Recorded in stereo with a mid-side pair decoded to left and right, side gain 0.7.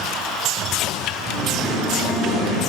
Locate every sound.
1.2 s singing: 30° right, 2 m